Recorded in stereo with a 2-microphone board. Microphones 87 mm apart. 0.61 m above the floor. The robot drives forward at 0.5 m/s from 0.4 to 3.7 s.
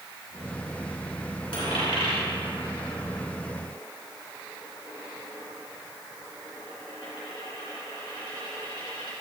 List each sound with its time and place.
1.5 s a dropped coin: 80° left, 3 m